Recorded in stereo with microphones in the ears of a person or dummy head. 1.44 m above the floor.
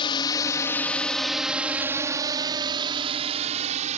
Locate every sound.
0.0 s a drone: 25° left (ahead or behind); by 4.0 s 35° right (ahead or behind)